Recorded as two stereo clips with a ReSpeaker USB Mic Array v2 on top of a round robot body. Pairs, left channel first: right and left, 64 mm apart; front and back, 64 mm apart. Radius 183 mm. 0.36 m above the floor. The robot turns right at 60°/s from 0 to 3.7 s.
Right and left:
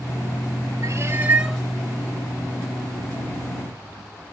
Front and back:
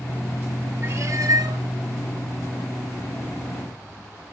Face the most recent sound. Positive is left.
turn(degrees=-60)